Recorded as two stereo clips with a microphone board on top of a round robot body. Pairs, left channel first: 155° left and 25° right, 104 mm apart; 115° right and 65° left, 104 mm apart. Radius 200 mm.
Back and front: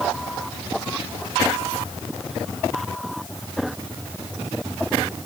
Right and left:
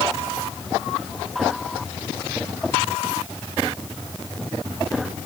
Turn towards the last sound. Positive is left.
No sound to turn to.